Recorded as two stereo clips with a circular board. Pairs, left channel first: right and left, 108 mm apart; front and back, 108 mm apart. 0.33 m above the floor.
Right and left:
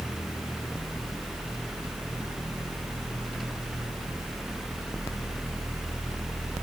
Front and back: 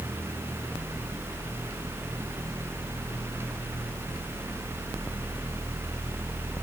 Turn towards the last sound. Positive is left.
No sound to turn to.